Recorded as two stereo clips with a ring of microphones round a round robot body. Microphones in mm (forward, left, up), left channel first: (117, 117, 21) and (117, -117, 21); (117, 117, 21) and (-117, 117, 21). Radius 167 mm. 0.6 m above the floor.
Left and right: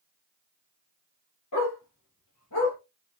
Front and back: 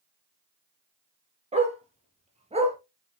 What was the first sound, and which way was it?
A dog barking, 115° left.